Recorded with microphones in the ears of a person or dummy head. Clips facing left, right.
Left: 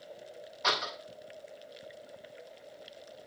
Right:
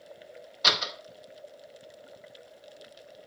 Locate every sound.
0.6 s a door slam: 55° right (ahead or behind), 5.5 m